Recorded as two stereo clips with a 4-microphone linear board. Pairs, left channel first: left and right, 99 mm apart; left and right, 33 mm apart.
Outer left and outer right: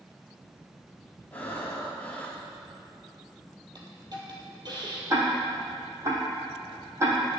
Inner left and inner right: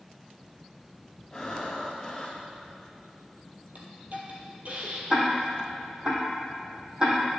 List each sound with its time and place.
1.3 s breathing: 15° left (ahead or behind), 1.6 m
3.8 s a hiss: 45° right (ahead or behind), 1.9 m
5.1 s ticking: 30° right (ahead or behind), 2.5 m